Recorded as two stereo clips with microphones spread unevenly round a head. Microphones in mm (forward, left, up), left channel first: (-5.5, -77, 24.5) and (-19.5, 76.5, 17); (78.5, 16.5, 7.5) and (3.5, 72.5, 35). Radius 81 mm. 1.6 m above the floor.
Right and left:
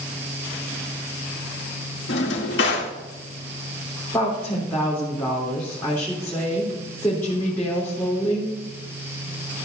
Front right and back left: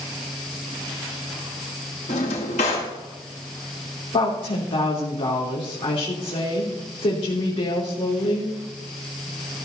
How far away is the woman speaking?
About 3 m.